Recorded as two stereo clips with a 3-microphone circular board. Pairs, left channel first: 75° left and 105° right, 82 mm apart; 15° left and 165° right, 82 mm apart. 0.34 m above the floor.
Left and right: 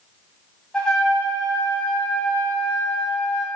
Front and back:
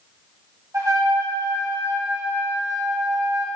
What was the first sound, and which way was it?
A trumpet, 155° left.